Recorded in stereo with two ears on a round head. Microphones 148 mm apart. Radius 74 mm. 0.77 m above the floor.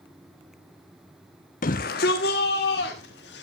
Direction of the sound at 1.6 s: 50° left (ahead or behind).